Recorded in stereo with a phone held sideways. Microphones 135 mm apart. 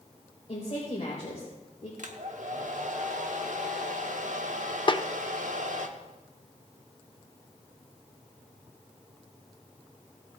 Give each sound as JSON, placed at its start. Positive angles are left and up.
{"t": 0.5, "sound": "a woman speaking", "side_deg": 40, "distance_m": 3.5}
{"t": 2.0, "sound": "a hair dryer", "side_deg": -65, "distance_m": 1.1}
{"t": 4.9, "sound": "a snare drum", "side_deg": 35, "distance_m": 0.5}